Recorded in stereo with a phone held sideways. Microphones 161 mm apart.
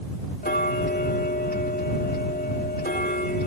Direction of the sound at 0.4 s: 75° left (ahead or behind).